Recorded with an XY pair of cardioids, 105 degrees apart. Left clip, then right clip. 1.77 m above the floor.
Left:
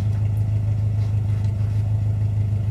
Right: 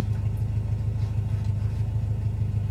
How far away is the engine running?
About 1.3 m.